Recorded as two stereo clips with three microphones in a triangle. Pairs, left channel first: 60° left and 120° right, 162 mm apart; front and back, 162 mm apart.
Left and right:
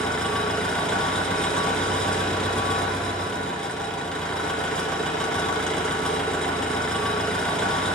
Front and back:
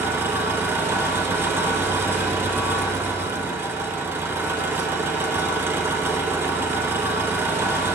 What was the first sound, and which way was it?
An engine running, 135° left.